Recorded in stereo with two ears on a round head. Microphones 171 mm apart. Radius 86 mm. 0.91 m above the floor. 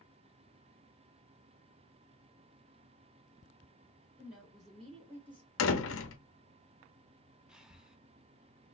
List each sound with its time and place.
4.2 s a woman speaking: 5° right (ahead or behind), 2 m; by 5.5 s 20° left (ahead or behind), 1.6 m
5.6 s a door slam: 65° left (ahead or behind), 0.7 m
7.5 s breathing: 5° right (ahead or behind), 0.6 m